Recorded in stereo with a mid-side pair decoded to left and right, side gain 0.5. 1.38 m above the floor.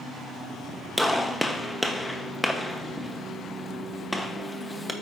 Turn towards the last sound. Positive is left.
turn(degrees=0)